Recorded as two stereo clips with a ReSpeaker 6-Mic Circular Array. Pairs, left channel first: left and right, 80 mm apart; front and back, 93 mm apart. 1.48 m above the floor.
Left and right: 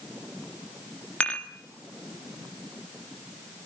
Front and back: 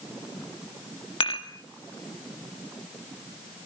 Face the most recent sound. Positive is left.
turn(degrees=15)